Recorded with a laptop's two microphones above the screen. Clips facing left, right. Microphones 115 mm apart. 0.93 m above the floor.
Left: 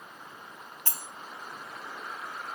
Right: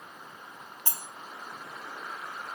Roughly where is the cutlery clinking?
Centre.